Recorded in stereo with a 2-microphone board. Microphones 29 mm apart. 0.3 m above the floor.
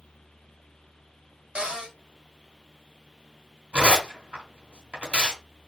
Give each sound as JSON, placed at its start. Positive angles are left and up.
{"t": 1.6, "sound": "a cupboard door", "side_deg": -50, "distance_m": 1.9}
{"t": 3.7, "sound": "tearing paper", "side_deg": -50, "distance_m": 2.0}